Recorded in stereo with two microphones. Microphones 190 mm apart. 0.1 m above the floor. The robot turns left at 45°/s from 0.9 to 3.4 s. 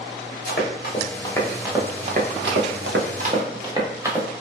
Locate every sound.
0.5 s running footsteps: 50° left (ahead or behind), 1.3 m; by 4.3 s 15° right (ahead or behind), 1.2 m